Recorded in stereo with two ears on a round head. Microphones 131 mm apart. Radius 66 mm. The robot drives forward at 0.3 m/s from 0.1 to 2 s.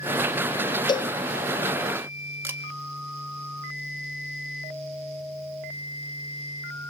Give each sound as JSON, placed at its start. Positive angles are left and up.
{"t": 0.9, "sound": "a cowbell", "side_deg": 30, "distance_m": 0.7}
{"t": 2.4, "sound": "a camera shutter", "side_deg": -15, "distance_m": 1.6}